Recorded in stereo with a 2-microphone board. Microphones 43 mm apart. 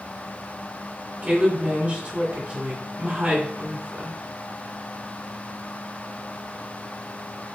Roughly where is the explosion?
I don't hear an explosion.